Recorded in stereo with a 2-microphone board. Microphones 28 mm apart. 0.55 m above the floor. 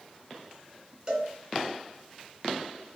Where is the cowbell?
40° right (ahead or behind), 3 m.